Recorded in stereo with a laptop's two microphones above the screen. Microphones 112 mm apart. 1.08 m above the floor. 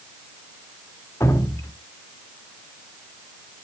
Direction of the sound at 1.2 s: 25° left (ahead or behind).